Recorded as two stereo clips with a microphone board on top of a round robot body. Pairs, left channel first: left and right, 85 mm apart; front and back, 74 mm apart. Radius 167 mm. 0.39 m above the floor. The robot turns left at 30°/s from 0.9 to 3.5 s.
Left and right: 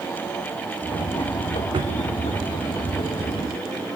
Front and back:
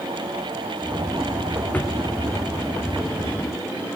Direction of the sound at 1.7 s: 65° right.